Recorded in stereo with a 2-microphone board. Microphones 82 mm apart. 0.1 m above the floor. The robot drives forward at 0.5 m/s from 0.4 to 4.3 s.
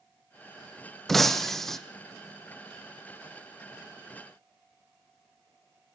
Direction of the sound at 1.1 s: 5° left (ahead or behind).